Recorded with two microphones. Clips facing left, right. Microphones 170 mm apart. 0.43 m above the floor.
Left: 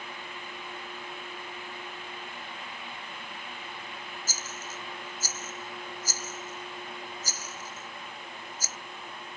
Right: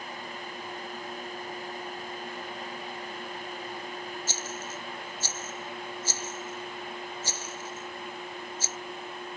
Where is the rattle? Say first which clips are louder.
Right 4 dB; 30° right (ahead or behind).